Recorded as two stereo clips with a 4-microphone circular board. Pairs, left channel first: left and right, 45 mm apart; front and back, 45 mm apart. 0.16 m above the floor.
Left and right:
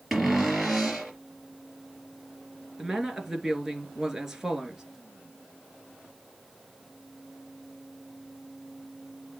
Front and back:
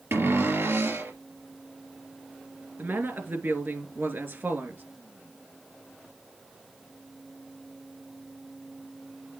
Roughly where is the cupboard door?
Behind.